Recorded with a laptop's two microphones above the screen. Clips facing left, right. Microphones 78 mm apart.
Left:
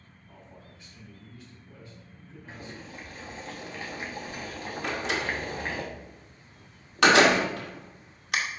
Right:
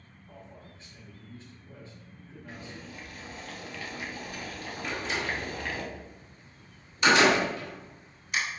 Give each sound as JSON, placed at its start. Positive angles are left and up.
{"t": 0.3, "sound": "a man speaking", "side_deg": -35, "distance_m": 2.5}
{"t": 2.5, "sound": "boiling", "side_deg": 25, "distance_m": 1.1}
{"t": 4.8, "sound": "a door slam", "side_deg": 80, "distance_m": 1.9}